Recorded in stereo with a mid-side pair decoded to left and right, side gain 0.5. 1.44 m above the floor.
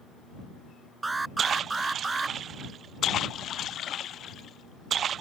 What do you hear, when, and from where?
1.0 s an alarm: 25° right